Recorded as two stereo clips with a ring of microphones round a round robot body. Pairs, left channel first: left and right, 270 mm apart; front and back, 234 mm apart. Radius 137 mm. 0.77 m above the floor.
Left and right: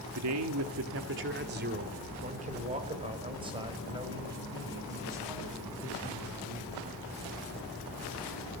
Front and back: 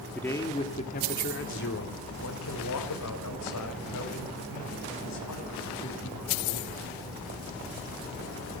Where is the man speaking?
85° right, 2 m; by 6.8 s 10° right, 9.5 m.